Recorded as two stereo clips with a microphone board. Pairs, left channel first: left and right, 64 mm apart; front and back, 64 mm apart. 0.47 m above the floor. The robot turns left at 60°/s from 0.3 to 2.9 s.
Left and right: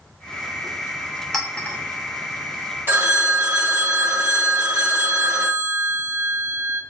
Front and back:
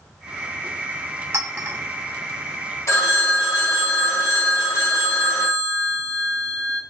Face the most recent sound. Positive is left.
turn(degrees=-40)